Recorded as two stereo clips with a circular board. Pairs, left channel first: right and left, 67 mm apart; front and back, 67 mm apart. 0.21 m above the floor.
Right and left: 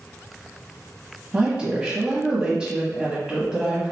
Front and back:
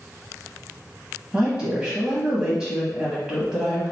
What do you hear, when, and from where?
1.3 s a woman speaking: 135° left, 1.0 m